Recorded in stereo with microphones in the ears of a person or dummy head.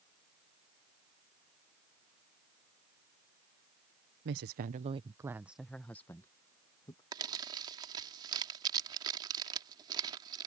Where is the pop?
No pop in this recording.